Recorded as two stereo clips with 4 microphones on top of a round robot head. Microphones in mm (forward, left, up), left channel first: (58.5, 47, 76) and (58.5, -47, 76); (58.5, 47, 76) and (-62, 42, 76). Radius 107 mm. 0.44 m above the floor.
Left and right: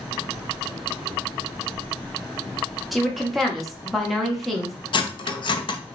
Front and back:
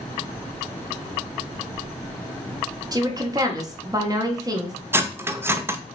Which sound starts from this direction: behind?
A woman speaking, at 2.9 s.